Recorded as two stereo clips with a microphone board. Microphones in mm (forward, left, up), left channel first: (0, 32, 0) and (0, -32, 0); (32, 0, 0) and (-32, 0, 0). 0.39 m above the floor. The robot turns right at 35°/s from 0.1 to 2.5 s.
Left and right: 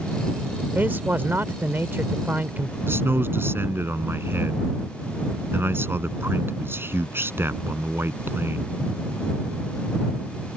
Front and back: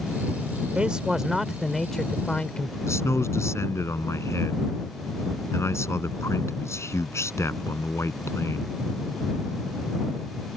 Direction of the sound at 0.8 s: 120° right.